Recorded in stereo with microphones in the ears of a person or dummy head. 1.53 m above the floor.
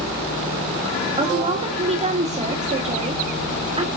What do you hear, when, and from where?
1.2 s a woman speaking: 20° right (ahead or behind), 1.4 m